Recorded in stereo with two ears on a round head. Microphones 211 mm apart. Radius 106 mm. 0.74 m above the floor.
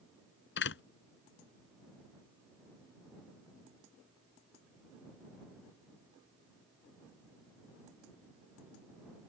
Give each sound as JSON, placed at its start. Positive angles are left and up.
{"t": 0.6, "sound": "a door slam", "side_deg": 55}